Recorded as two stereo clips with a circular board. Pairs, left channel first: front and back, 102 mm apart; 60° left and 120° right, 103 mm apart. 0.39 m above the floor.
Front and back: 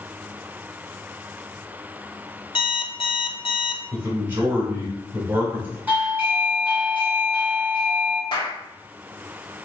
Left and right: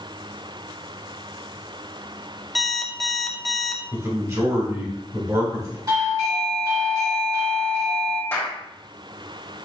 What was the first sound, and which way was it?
An alarm clock, 30° right.